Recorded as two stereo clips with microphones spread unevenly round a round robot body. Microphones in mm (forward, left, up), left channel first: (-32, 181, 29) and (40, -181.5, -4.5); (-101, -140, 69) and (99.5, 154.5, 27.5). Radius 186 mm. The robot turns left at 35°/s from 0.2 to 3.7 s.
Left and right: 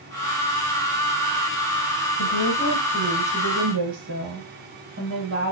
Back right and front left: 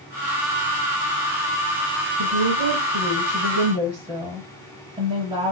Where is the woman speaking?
30° left, 7.5 m; by 5.5 s 20° right, 7.5 m.